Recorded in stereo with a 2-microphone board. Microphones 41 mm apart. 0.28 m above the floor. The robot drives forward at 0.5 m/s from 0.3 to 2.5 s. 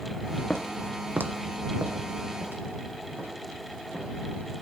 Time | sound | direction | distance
0.5 | footsteps | 25° left (ahead or behind) | 0.9 m